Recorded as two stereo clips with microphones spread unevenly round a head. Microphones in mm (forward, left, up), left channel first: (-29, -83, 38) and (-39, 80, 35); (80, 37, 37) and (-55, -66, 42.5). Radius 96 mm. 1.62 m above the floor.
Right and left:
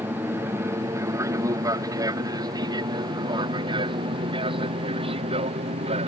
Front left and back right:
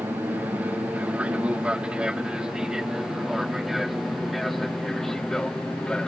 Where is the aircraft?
150° left; by 6.1 s 120° left.